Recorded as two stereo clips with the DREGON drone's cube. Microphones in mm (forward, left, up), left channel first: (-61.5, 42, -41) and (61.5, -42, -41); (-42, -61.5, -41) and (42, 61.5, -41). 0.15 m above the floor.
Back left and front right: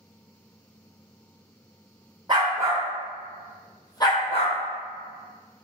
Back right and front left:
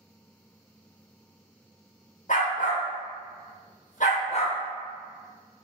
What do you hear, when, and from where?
2.3 s a dog barking: 95° right, 1.4 m; by 4.6 s 170° right, 1.3 m